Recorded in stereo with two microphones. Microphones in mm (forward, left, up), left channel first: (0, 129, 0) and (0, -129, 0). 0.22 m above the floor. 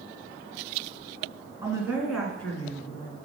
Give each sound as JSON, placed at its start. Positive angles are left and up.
{"t": 1.6, "sound": "a woman speaking", "side_deg": -10, "distance_m": 2.5}